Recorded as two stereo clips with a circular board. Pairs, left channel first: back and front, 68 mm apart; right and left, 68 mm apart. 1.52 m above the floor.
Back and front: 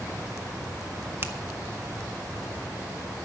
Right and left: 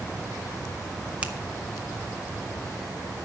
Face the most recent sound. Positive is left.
turn(degrees=30)